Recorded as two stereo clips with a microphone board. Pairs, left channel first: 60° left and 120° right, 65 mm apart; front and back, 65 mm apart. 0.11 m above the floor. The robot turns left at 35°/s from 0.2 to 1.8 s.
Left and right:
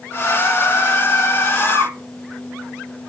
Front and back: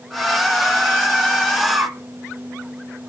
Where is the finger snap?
I don't hear a finger snap.